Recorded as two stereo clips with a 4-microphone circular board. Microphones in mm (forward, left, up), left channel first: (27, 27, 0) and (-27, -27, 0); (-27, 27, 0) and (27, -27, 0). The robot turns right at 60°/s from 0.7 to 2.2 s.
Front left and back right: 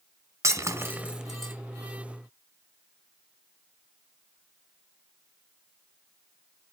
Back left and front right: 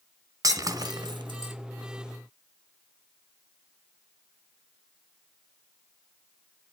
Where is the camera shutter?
I don't hear a camera shutter.